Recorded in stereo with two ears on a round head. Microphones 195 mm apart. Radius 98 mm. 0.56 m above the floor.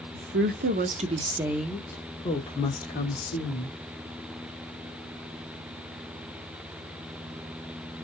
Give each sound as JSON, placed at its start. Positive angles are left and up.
{"t": 0.1, "sound": "a woman speaking", "side_deg": -55, "distance_m": 1.0}